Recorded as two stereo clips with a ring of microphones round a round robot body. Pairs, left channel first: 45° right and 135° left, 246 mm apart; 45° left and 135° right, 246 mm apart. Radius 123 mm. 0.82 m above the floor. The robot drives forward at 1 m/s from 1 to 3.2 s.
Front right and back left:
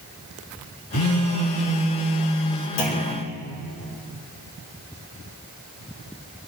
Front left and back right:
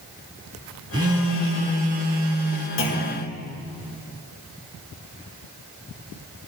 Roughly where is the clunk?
Ahead.